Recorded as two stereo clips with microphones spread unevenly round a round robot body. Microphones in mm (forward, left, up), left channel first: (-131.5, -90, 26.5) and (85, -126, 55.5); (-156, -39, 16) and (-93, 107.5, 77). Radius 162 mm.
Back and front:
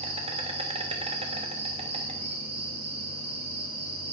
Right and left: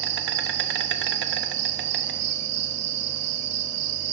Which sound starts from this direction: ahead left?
An insect, at 0.0 s.